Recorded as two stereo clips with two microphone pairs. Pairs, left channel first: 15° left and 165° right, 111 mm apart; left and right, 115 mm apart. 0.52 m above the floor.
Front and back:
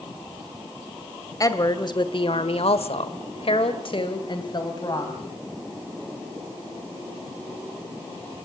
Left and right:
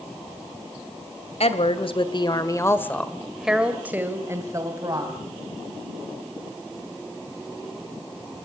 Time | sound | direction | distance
1.4 | a woman speaking | 70° left | 2 m